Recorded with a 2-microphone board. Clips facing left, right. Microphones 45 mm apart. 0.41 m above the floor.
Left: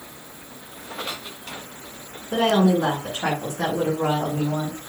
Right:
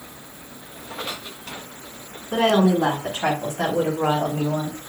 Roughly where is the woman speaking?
Right.